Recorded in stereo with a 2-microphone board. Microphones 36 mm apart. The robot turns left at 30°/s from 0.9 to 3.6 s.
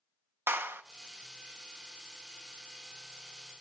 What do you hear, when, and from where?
0.5 s a clap: 80° right, 0.8 m